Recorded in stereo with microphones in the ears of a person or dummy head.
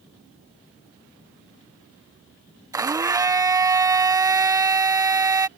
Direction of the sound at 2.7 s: 10° right (ahead or behind).